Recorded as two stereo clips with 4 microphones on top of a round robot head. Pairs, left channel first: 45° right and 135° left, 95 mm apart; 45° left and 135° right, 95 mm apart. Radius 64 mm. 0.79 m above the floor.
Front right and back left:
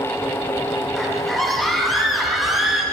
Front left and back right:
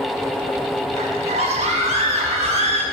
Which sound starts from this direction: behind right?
A scream, at 0.9 s.